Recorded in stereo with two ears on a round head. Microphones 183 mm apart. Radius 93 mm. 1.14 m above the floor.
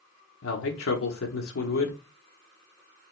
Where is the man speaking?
70° left (ahead or behind), 0.8 m.